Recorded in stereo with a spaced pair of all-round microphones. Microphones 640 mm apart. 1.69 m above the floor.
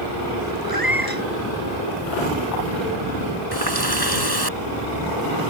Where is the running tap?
35° left (ahead or behind).